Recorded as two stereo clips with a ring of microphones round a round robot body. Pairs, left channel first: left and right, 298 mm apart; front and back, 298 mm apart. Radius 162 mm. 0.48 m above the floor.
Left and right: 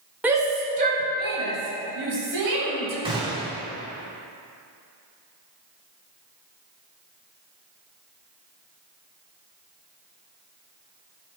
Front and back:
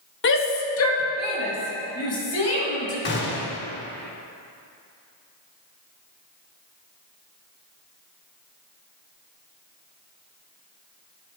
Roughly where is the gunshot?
Ahead right.